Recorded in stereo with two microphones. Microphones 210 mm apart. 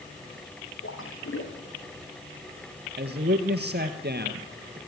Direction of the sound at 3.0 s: 55° right (ahead or behind).